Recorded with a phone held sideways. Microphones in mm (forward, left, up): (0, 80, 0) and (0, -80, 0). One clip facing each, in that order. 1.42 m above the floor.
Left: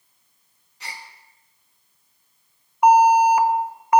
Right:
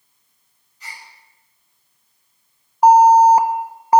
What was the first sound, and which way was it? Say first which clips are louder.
A gasp: left 2 dB; 75° left (ahead or behind).